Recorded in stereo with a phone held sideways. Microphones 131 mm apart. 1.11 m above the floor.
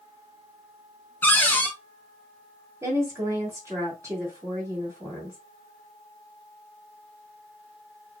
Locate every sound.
1.2 s a cupboard door: 15° left (ahead or behind), 0.7 m
2.8 s a woman speaking: 20° right (ahead or behind), 1.6 m